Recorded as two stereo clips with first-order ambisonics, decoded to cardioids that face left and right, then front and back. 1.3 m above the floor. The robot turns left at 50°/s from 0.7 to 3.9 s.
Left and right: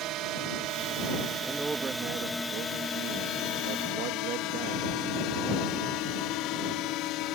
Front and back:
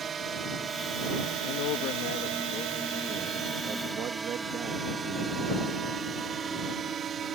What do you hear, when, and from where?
0.0 s a drone: 115° right; by 7.4 s 120° left
1.4 s a man speaking: straight ahead; by 5.4 s 125° right